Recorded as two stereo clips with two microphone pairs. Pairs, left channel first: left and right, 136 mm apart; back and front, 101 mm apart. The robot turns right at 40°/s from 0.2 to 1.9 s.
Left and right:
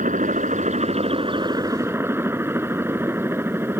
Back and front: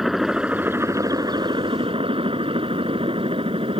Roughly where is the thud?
I don't hear a thud.